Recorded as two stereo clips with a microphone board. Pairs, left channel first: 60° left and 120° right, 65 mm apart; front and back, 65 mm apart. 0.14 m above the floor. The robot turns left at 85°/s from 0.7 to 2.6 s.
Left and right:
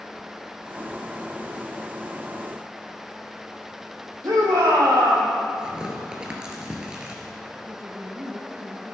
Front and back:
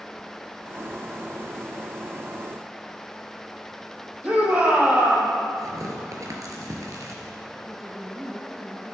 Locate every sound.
4.2 s a shout: 115° right, 4.5 m
5.6 s tearing paper: 165° left, 3 m
7.7 s a woman speaking: 95° right, 2 m